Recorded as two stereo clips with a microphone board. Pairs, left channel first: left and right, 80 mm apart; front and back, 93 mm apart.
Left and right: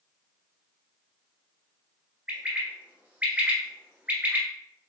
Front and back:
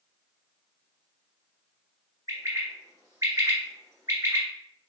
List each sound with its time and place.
2.3 s a bird: 150° right, 1.5 m